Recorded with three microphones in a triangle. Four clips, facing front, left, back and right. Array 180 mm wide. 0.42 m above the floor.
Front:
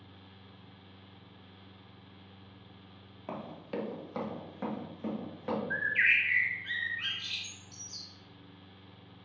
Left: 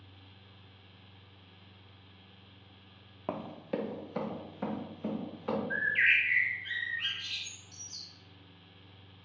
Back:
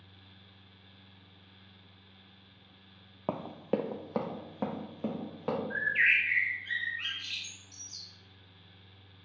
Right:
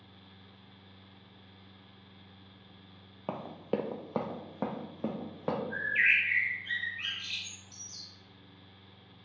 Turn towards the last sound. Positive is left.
turn(degrees=5)